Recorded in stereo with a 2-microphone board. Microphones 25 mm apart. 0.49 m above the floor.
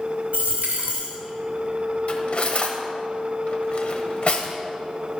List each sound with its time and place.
0.3 s a dropped coin: 85° right, 2 m
2.1 s cutlery clinking: 50° left (ahead or behind), 1.1 m